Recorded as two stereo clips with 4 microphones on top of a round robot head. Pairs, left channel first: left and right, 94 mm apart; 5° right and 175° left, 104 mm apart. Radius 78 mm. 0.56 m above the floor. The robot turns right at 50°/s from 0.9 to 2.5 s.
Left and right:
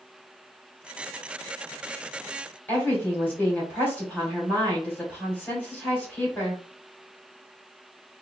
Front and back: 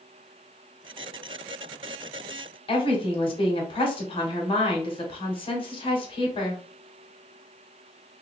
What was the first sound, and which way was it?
A woman speaking, 20° left.